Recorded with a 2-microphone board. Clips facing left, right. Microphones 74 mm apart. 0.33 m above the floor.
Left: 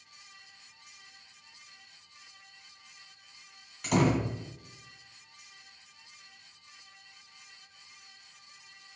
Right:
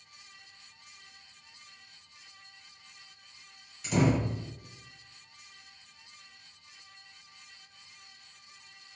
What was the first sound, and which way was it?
A door slam, 65° left (ahead or behind).